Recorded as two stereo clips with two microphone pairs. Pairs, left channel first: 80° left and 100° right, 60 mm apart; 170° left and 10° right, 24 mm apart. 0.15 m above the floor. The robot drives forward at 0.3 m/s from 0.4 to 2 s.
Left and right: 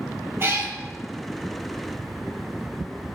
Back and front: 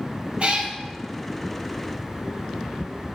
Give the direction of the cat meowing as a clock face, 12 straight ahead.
2 o'clock.